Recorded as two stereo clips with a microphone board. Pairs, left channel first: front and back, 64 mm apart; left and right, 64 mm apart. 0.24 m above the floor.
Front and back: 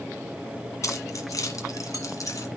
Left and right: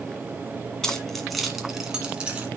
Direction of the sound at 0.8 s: 10° left.